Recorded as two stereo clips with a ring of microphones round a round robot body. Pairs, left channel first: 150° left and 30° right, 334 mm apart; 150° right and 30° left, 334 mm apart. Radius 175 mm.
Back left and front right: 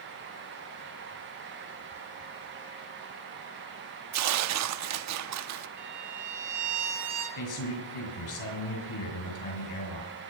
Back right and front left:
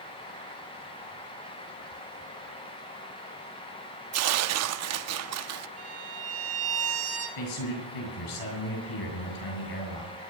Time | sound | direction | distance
4.1 | tearing paper | straight ahead | 0.8 m
5.8 | a violin | 20° right | 7.5 m
7.4 | a man speaking | 175° right | 6.5 m